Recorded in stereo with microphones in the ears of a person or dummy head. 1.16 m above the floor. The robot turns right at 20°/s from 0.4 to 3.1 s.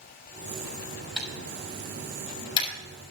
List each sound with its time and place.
1.2 s typing on a keyboard: centre (ahead or behind), 7 m; by 2.7 s 30° left (ahead or behind), 7 m